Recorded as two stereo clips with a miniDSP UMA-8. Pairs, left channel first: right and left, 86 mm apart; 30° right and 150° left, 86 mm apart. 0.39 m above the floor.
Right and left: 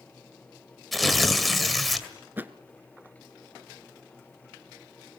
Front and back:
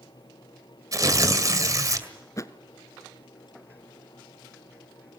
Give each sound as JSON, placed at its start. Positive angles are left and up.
{"t": 0.9, "sound": "tearing paper", "azimuth_deg": 180, "distance_m": 2.0}
{"t": 2.4, "sound": "a thud", "azimuth_deg": 20, "distance_m": 1.1}